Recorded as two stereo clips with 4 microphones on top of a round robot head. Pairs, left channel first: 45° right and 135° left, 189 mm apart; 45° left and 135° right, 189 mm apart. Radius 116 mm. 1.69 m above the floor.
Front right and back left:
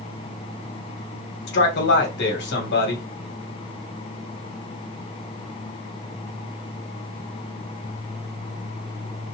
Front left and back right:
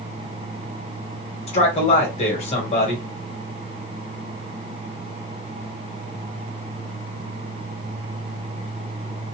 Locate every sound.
1.5 s a man speaking: 10° right, 1.3 m